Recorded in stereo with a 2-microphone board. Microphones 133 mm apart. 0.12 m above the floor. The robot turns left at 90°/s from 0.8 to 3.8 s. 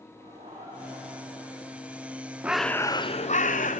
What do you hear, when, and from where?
0.2 s laughter: 75° right, 9.5 m; by 2.3 s 150° left, 9.5 m
2.4 s a bird: 170° right, 0.6 m; by 3.8 s 70° left, 0.6 m